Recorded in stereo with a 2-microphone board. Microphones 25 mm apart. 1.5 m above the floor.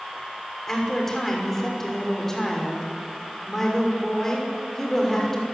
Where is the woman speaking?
15° left (ahead or behind), 6 m.